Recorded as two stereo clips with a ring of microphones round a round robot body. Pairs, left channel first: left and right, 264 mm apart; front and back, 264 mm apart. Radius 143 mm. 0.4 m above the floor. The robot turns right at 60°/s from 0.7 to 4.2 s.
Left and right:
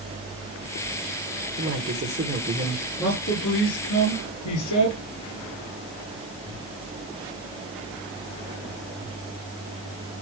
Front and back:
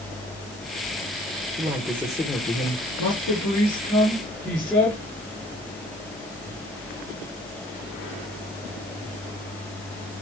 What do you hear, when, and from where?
1.6 s a man speaking: 105° right, 1.6 m; by 2.8 s 30° right, 1.6 m
3.0 s a man speaking: 15° left, 8.5 m; by 5.0 s 90° left, 8.5 m